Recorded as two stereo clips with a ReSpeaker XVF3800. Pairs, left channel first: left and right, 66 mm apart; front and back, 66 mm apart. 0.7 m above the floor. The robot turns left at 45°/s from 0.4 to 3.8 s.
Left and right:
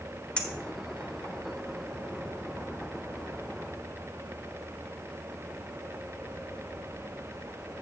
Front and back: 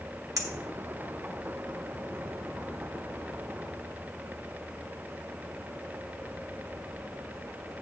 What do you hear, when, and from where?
0.4 s a clink: 160° left, 1.3 m; by 1.3 s 120° left, 1.3 m